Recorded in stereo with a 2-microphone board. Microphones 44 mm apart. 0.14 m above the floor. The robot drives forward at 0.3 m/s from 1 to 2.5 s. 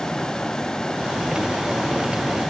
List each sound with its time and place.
Only background noise.